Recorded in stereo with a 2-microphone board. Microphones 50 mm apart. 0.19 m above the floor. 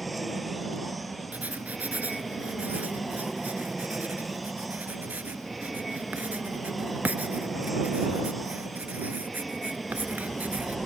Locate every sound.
0.0 s an aircraft: centre (ahead or behind)
1.3 s writing: 35° right (ahead or behind)